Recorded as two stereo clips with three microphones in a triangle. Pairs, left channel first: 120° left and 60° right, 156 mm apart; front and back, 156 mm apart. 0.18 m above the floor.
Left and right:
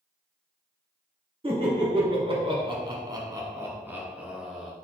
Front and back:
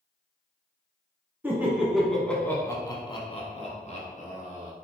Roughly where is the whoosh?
I don't hear a whoosh.